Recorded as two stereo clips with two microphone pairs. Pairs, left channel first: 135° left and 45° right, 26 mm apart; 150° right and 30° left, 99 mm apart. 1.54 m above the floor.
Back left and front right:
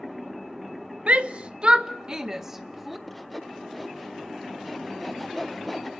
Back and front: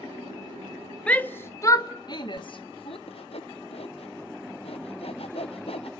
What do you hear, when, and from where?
1.1 s a shout: 75° right, 1.2 m; by 3.0 s 130° right, 1.6 m
3.1 s sawing: 135° right, 1.2 m